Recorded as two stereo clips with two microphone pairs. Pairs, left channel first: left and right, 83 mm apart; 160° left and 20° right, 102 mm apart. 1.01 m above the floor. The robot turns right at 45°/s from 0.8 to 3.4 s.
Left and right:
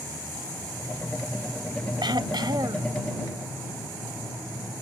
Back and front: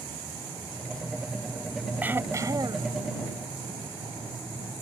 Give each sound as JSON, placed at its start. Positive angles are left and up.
{"t": 2.0, "sound": "throat clearing", "azimuth_deg": -95}